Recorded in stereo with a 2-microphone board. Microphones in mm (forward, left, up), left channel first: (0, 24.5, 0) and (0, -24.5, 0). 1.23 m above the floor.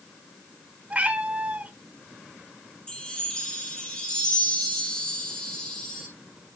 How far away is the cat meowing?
About 1.3 m.